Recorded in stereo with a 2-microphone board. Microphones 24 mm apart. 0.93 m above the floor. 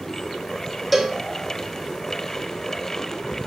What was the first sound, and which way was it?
A cowbell, 5° right (ahead or behind).